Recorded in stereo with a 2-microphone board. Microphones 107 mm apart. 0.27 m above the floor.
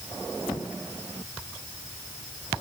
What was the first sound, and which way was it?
Only background noise.